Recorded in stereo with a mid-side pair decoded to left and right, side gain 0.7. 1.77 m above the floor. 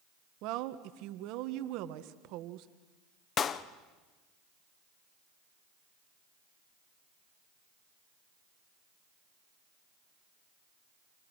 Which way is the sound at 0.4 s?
65° right.